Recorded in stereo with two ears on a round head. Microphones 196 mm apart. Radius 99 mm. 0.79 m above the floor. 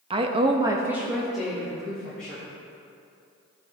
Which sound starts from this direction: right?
A woman speaking, at 0.1 s.